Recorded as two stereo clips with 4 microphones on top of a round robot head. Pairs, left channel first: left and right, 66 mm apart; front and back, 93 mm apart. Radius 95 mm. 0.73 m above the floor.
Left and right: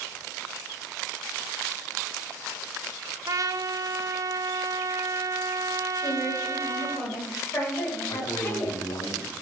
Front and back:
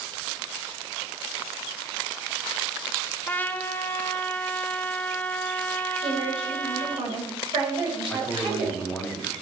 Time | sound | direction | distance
3.3 | a trumpet | 70° right | 1.0 m
6.0 | a woman speaking | 150° left | 4.5 m
8.1 | a man speaking | 80° left | 3 m